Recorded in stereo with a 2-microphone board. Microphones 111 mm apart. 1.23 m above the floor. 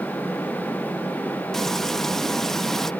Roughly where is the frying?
Centre.